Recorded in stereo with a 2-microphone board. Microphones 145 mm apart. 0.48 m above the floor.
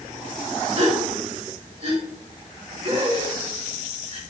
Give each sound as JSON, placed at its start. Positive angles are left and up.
{"t": 0.8, "sound": "a gasp", "side_deg": -45, "distance_m": 2.5}